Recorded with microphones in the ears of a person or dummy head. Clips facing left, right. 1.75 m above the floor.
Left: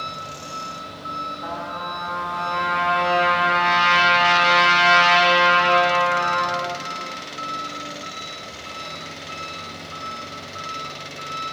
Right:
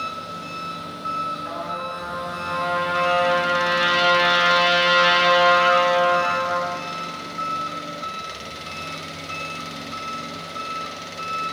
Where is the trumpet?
75° left (ahead or behind), 6 m.